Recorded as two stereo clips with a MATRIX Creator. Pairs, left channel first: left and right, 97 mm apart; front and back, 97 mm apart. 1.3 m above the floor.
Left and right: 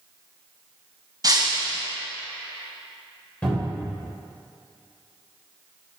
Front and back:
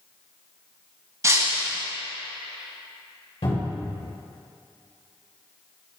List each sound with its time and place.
1.2 s breaking glass: 130° right, 2.0 m
3.4 s a cupboard door: 15° left, 2.5 m